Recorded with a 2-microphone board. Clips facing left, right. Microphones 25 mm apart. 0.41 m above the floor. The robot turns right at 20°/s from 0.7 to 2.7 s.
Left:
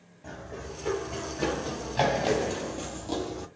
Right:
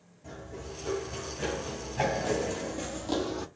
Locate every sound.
0.2 s running footsteps: 45° left (ahead or behind), 1.4 m; by 3.5 s 30° right (ahead or behind), 0.6 m